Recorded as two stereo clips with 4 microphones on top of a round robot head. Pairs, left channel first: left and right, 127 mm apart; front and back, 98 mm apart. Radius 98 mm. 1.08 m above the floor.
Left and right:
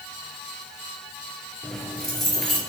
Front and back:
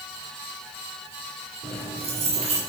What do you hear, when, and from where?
1.6 s keys jangling: straight behind, 3 m